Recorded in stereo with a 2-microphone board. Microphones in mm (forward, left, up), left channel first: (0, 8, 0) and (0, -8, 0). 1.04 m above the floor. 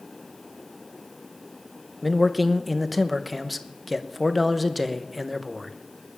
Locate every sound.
2.0 s a man speaking: 5° left (ahead or behind), 0.9 m